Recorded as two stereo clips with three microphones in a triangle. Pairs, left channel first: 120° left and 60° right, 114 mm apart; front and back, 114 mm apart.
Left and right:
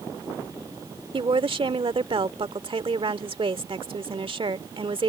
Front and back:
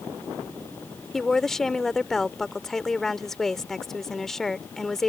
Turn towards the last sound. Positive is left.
turn(degrees=-85)